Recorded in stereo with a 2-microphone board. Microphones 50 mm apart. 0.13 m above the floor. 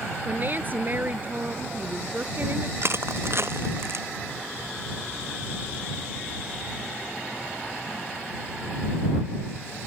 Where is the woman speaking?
45° right (ahead or behind).